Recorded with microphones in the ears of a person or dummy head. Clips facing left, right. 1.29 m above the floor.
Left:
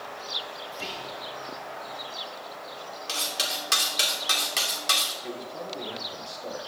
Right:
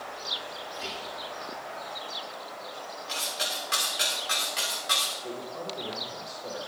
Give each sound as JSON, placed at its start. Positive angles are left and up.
{"t": 0.7, "sound": "whispering", "side_deg": 60, "distance_m": 3.0}
{"t": 3.1, "sound": "cutlery clinking", "side_deg": 60, "distance_m": 2.5}
{"t": 5.2, "sound": "a man speaking", "side_deg": 30, "distance_m": 6.5}